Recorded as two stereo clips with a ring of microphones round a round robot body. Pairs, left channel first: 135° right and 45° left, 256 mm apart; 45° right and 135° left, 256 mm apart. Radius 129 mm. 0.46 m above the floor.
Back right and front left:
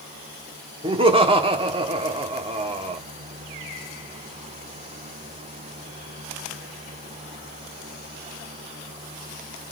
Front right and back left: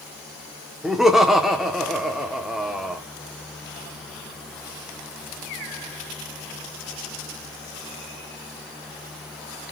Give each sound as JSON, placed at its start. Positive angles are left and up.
{"t": 0.8, "sound": "laughter", "azimuth_deg": 50, "distance_m": 1.2}